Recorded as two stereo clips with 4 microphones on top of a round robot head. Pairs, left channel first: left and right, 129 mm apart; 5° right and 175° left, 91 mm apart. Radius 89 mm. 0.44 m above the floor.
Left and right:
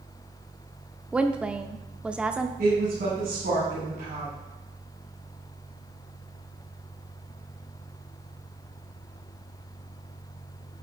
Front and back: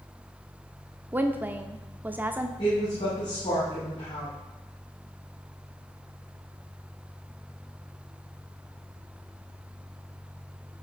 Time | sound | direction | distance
1.1 | a woman speaking | 155° right | 0.7 m
2.6 | a woman speaking | 55° right | 4 m